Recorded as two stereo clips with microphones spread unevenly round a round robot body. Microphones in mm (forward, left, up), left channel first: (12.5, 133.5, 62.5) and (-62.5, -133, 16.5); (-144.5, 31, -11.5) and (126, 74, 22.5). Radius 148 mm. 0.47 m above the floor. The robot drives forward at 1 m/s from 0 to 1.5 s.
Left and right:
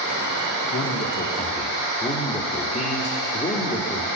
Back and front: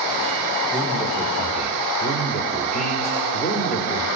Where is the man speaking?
95° left, 1.2 m; by 4.1 s 140° left, 1.5 m.